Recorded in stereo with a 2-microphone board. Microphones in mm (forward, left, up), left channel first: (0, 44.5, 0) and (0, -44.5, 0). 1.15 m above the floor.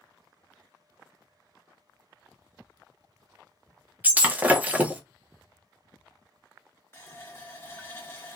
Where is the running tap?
30° left (ahead or behind), 1.3 m.